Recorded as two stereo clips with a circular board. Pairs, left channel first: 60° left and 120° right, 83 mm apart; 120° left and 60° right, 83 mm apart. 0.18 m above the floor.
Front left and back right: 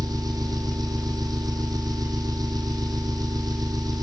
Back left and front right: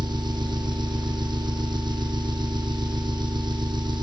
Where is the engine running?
85° right, 2.5 m.